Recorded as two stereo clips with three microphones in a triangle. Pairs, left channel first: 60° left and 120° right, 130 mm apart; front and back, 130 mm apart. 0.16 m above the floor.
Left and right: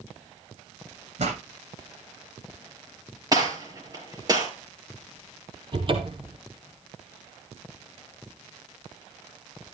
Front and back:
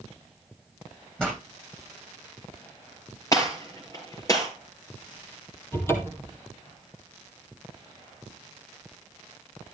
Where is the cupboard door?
70° right, 1.9 m.